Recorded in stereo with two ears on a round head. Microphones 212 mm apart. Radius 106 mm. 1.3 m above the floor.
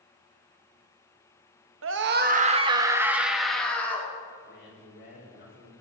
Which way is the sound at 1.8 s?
60° right (ahead or behind).